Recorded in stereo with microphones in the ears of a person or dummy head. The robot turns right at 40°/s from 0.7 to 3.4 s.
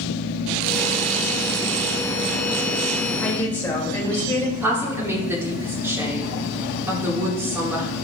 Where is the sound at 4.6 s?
15° right (ahead or behind), 1.9 m.